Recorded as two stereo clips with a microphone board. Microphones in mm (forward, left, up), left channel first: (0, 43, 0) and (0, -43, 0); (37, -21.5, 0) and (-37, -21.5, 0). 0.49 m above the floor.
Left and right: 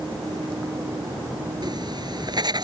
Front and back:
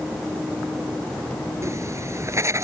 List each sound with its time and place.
1.6 s writing: 130° right